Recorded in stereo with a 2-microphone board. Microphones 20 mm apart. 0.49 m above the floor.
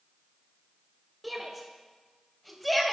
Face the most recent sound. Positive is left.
turn(degrees=5)  # may be behind; listen again after turning